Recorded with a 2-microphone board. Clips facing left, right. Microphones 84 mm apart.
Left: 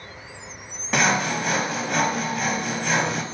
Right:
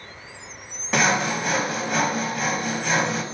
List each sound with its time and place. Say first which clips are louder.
0.9 s sawing: even; centre (ahead or behind), 0.5 m